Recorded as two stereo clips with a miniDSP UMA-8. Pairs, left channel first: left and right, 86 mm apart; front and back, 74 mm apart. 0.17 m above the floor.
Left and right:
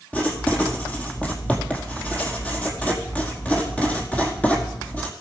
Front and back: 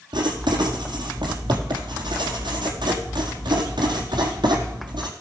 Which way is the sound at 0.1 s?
165° left.